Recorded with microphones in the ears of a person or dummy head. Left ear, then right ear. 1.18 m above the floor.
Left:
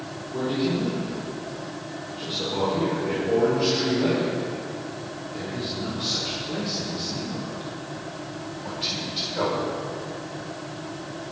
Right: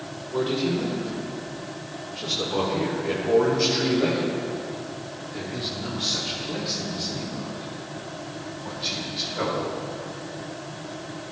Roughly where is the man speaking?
Right.